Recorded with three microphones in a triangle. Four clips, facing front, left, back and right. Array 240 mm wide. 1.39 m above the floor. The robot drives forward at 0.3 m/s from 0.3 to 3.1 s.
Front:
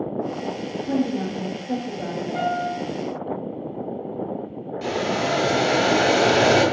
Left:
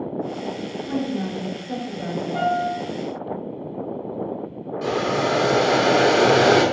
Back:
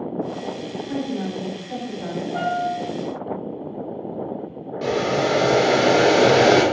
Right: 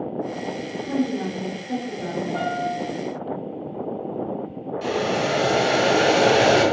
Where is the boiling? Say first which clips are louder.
Left 1 dB, back 3 dB; 170° left, 0.6 m.